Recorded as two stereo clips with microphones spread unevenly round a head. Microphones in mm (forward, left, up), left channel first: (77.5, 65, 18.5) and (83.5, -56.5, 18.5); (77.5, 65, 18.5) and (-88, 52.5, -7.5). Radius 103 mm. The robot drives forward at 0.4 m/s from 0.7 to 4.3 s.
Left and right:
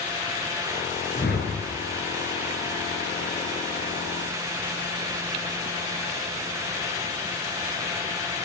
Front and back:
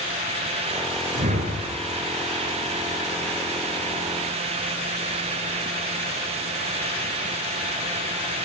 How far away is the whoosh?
About 7.5 m.